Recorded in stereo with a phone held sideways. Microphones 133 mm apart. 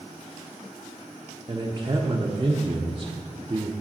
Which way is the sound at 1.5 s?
30° right (ahead or behind).